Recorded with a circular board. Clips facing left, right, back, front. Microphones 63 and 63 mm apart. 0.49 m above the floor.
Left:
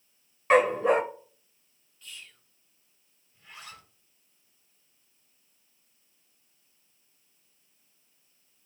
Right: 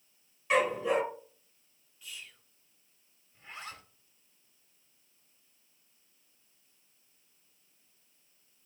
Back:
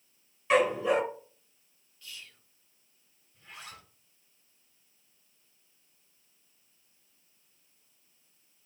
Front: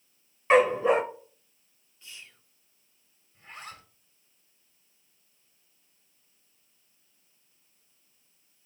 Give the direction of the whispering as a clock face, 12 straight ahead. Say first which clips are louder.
Even, even; 12 o'clock.